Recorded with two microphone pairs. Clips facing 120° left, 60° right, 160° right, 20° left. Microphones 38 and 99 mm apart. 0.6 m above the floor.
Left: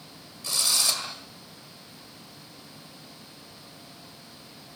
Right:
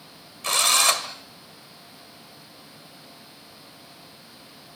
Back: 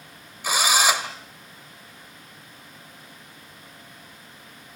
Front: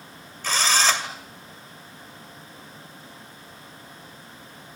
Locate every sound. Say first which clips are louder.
0.4 s a drill: right 7 dB, back 1 dB; 80° right, 2 m